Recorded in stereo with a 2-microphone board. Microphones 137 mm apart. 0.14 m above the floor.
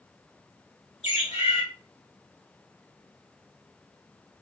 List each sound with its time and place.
1.0 s a bird: 50° left (ahead or behind), 2 m